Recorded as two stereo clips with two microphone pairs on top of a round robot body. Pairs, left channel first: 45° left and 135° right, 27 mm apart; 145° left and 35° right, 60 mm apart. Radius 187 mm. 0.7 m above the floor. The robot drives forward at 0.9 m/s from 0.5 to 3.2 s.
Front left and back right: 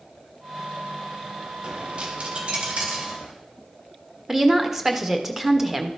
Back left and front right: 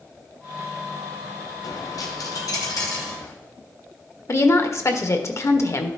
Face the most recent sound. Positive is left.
turn(degrees=160)